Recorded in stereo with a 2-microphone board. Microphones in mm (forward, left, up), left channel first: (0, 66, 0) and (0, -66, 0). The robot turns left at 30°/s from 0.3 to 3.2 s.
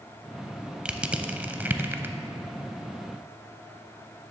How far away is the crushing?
About 0.5 m.